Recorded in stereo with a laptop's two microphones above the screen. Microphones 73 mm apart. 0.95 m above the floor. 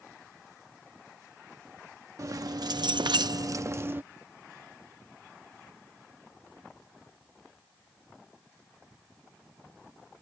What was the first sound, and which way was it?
Keys jangling, 45° right (ahead or behind).